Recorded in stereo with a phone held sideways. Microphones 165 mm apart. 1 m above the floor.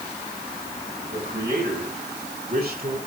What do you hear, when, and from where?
1.1 s a man speaking: 80° right, 7 m; by 3.0 s 65° right (ahead or behind), 8 m